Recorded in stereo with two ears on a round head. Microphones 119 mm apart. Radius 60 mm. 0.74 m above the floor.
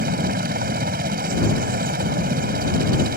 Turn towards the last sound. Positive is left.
turn(degrees=-70)  # may be behind; listen again after turning